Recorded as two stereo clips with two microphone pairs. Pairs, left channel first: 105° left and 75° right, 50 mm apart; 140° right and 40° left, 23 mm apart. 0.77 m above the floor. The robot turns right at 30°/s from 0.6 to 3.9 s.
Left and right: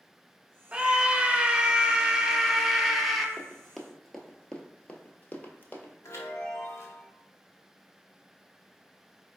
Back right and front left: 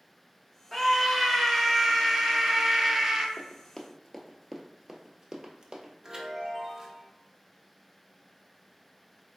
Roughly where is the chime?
Left.